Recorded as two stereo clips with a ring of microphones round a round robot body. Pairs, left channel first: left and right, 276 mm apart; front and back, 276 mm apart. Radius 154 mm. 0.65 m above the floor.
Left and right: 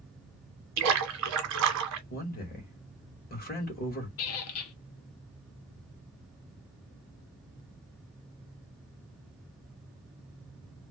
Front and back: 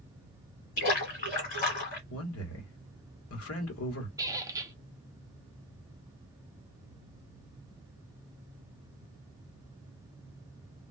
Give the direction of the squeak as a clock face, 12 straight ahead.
9 o'clock.